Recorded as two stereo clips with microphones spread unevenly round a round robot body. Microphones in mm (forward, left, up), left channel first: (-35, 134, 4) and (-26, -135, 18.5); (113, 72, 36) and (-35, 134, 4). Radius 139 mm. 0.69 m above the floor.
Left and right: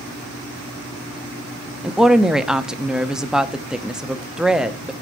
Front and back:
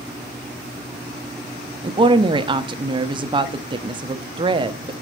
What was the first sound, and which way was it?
A woman speaking, straight behind.